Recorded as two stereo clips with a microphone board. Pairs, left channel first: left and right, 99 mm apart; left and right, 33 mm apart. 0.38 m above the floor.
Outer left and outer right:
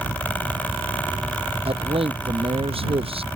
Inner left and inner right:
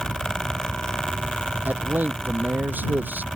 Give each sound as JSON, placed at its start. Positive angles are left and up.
{"t": 1.6, "sound": "a man speaking", "side_deg": -70}